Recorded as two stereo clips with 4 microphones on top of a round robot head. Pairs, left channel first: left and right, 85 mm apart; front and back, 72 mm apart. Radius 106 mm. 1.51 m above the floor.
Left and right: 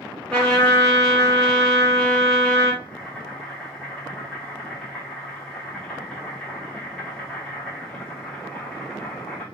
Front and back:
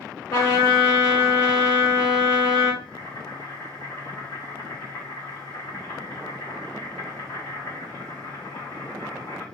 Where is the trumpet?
15° left, 1.9 m.